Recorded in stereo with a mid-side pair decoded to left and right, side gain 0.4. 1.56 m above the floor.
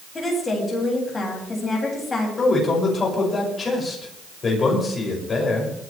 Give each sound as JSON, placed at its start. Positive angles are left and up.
{"t": 0.1, "sound": "a woman speaking", "azimuth_deg": 35, "distance_m": 9.0}
{"t": 2.4, "sound": "a man speaking", "azimuth_deg": 45, "distance_m": 9.0}